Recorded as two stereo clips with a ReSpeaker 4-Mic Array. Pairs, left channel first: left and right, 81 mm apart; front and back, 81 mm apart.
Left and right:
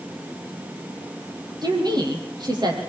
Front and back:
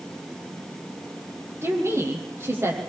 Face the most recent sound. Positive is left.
turn(degrees=-125)